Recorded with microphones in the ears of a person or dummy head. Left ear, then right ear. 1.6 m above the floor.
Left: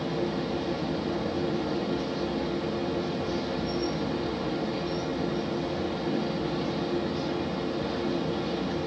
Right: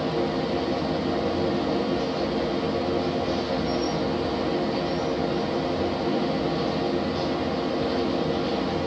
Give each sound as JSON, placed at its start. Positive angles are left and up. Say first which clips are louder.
{"t": 0.0, "sound": "a machine running", "louder": "right 5 dB", "side_deg": 0, "distance_m": 0.8}